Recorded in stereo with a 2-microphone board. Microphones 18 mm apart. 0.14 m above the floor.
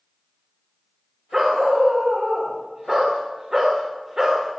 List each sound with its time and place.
1.3 s a dog barking: 30° right (ahead or behind), 5 m